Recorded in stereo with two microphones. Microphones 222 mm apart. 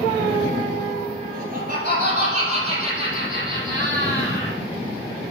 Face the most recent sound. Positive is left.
turn(degrees=-15)  # may be behind; listen again after turning